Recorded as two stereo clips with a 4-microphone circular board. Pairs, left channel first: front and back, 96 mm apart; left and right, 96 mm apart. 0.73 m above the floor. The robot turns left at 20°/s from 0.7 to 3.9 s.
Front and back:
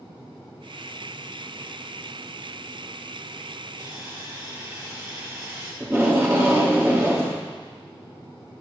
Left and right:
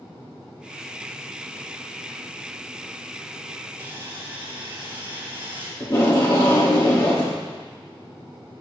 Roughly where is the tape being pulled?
Behind left.